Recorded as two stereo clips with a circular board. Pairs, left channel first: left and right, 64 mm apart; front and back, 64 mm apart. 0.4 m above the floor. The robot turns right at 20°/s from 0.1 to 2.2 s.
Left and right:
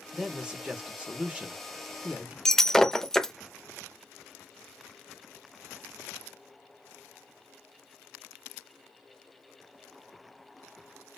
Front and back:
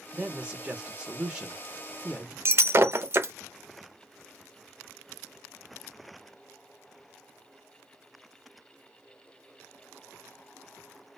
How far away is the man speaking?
About 0.8 m.